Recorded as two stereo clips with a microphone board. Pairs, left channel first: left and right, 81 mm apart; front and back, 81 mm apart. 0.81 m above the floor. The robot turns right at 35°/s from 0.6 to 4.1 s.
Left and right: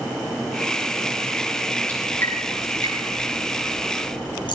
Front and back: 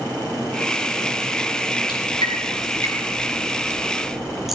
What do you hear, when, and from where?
1.9 s dripping: 15° left, 7.5 m; by 4.5 s 95° left, 7.5 m